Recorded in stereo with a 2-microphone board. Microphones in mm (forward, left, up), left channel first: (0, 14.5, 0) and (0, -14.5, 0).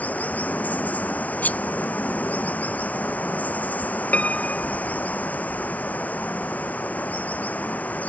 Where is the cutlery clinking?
75° left (ahead or behind).